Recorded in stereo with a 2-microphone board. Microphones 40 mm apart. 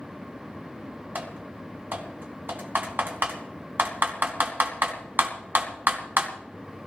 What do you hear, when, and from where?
1.1 s typing on a keyboard: 60° right (ahead or behind), 3.5 m